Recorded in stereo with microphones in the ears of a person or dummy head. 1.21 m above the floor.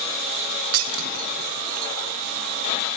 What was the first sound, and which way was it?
Breaking glass, 75° right (ahead or behind).